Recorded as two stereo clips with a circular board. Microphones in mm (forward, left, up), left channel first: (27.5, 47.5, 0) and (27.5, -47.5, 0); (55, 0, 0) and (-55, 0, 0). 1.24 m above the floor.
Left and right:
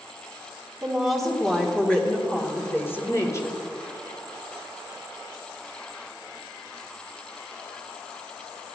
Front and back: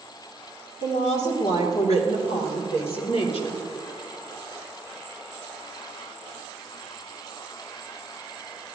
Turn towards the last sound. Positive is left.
turn(degrees=35)